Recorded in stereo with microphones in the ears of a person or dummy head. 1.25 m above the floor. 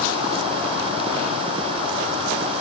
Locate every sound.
Only background noise.